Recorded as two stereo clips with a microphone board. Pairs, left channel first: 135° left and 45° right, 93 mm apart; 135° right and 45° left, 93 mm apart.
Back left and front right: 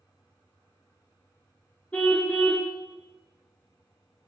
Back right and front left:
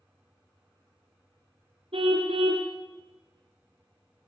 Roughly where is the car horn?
Ahead left.